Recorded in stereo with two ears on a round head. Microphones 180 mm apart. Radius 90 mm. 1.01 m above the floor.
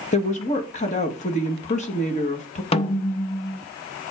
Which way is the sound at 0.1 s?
35° left (ahead or behind).